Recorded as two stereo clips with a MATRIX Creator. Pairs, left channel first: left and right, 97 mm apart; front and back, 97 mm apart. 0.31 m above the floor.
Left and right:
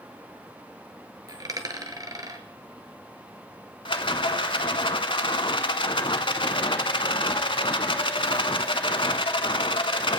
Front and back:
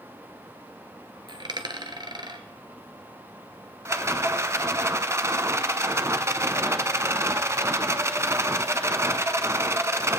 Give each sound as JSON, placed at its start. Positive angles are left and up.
{"t": 1.3, "sound": "a dropped coin", "azimuth_deg": -140, "distance_m": 1.3}
{"t": 3.9, "sound": "a rattle", "azimuth_deg": 120, "distance_m": 0.7}